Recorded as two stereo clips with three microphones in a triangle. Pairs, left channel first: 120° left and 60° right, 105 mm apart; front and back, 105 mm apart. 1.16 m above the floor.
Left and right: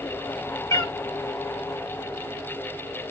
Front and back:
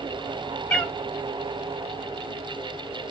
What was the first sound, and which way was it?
A cat meowing, 75° left.